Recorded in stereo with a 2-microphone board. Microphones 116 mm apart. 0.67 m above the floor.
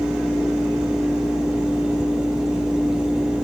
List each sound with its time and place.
Only background noise.